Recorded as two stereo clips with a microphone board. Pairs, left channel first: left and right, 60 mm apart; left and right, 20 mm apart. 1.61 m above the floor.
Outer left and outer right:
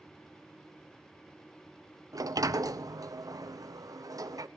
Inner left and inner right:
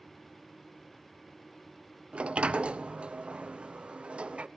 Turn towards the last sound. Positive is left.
turn(degrees=-75)  # may be behind; listen again after turning